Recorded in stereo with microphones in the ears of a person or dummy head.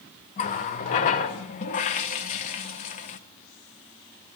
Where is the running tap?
30° left (ahead or behind), 0.6 m.